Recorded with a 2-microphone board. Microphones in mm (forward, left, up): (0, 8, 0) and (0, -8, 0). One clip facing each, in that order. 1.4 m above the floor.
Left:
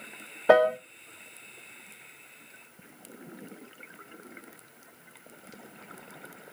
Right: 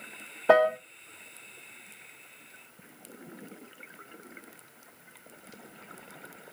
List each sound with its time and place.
0.5 s a piano: 10° left (ahead or behind), 0.6 m